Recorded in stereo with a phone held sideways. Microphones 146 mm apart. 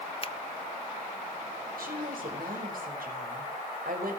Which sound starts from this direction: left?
A finger snap, at 0.2 s.